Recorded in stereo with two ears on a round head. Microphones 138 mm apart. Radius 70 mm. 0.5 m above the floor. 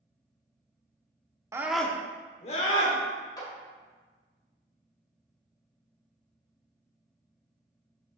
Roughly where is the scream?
Centre.